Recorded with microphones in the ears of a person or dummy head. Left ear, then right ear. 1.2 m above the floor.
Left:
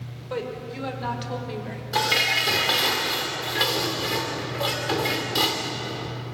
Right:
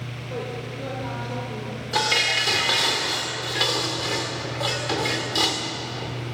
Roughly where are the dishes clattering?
Centre.